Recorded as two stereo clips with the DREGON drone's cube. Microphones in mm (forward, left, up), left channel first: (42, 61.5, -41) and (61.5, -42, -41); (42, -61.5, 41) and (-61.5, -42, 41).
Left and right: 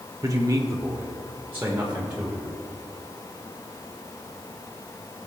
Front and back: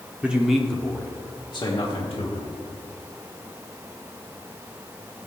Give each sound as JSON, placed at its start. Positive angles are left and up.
{"t": 0.2, "sound": "a man speaking", "azimuth_deg": -115, "distance_m": 1.3}